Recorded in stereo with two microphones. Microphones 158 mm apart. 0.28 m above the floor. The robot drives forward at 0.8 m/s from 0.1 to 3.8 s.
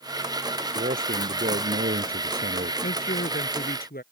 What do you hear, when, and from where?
0.8 s a man speaking: 70° right (ahead or behind); by 2.7 s 75° right (ahead or behind)
2.8 s a woman speaking: 70° left (ahead or behind); by 4.0 s 75° left (ahead or behind)